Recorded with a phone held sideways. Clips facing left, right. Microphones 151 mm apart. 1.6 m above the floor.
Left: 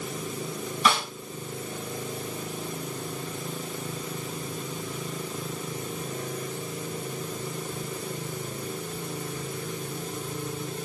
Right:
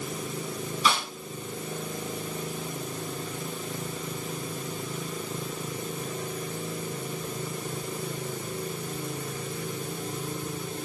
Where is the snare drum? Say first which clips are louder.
Left 2 dB; 65° left (ahead or behind), 3.5 m.